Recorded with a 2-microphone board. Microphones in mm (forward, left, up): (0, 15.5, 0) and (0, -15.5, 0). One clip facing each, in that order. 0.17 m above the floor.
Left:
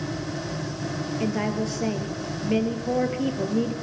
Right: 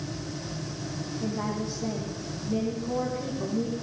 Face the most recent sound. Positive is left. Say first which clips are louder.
# left 5 dB
turn(degrees=70)  # may be behind; listen again after turning